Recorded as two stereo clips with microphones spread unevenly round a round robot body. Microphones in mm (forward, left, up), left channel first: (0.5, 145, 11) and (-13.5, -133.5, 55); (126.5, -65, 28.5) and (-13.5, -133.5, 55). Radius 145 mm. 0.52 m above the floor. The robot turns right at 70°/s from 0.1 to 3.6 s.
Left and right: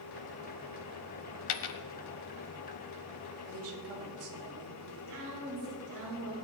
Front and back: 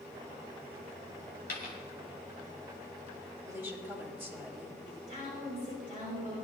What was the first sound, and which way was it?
A dropped coin, 85° left.